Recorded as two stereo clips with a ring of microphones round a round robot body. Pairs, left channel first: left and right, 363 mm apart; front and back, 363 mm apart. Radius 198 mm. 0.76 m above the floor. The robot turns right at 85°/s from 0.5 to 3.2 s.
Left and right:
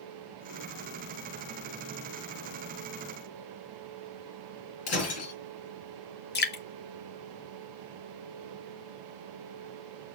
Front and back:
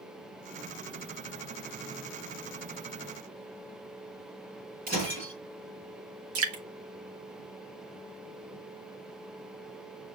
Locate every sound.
4.9 s breaking glass: 110° left, 6 m
6.3 s dripping: 140° left, 1.5 m